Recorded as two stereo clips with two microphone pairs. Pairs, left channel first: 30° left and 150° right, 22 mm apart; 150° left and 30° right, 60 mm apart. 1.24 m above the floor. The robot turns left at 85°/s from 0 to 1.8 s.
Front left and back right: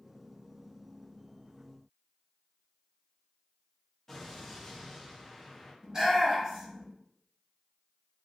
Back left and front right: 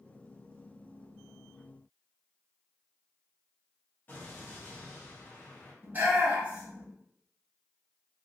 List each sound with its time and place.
4.1 s an explosion: 105° left, 0.8 m
5.8 s a shout: 80° right, 1.4 m